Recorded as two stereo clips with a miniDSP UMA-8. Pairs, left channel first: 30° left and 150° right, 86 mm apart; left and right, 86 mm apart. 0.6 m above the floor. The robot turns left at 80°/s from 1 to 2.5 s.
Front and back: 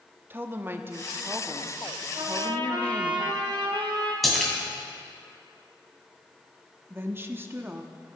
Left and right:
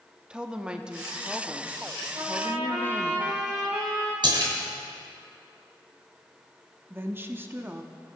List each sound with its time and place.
0.3 s a woman speaking: 155° right, 0.6 m; by 3.1 s 85° left, 0.6 m
2.1 s a trumpet: 145° right, 4 m; by 4.1 s 170° right, 4 m
4.2 s a splash: 60° right, 2 m
6.9 s a woman speaking: 125° right, 0.7 m